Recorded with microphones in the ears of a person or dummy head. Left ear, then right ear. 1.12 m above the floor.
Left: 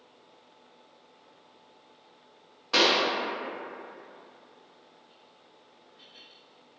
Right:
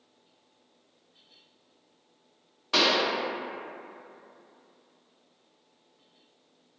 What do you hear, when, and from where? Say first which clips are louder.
2.7 s a pop: left 1 dB; centre (ahead or behind), 0.5 m